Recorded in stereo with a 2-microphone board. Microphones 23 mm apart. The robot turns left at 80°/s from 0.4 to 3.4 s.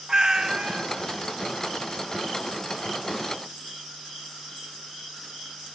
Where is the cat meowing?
45° right, 1.0 m; by 0.8 s 85° right, 1.0 m.